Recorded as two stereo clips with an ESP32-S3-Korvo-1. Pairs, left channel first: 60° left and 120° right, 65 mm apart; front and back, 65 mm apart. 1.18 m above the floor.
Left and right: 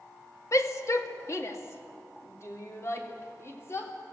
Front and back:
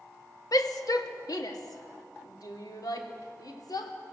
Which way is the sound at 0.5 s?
20° left.